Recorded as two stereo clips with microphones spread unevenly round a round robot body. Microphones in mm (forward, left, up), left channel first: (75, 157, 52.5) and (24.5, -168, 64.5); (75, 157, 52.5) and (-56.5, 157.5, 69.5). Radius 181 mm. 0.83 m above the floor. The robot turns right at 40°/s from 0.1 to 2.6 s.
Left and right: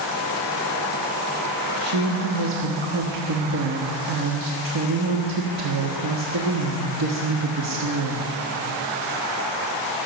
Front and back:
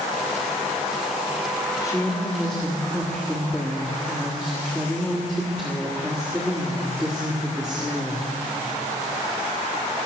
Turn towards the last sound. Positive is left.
turn(degrees=-80)